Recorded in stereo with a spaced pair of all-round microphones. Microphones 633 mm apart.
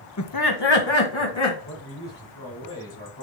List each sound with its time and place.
0.2 s laughter: 25° left (ahead or behind), 0.6 m; by 1.6 s 50° left (ahead or behind), 2 m
1.6 s a man speaking: 40° left (ahead or behind), 4 m